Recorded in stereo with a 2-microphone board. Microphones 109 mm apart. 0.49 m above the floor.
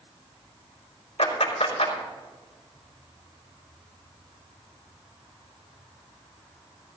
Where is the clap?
75° left (ahead or behind), 4 m.